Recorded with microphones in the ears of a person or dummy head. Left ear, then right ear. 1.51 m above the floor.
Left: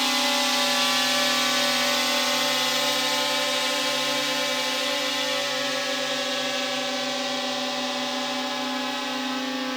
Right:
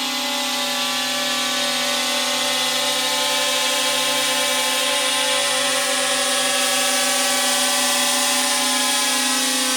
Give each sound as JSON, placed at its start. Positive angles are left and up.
{"t": 0.0, "sound": "a drone", "side_deg": 5}